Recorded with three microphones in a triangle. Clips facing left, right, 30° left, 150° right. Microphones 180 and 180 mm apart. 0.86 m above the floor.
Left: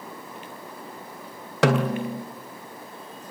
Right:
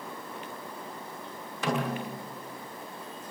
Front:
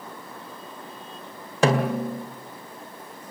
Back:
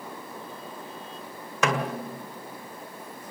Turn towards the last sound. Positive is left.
turn(degrees=85)